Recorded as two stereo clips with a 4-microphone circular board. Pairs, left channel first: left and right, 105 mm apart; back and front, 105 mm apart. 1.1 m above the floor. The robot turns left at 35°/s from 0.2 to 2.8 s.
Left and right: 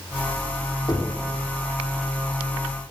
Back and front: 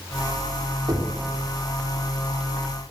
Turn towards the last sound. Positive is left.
turn(degrees=-20)